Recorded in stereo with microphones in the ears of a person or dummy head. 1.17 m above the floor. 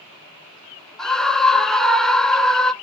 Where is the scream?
5° left (ahead or behind), 0.7 m.